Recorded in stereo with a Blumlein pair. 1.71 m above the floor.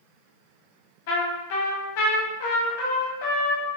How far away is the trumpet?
About 1.1 m.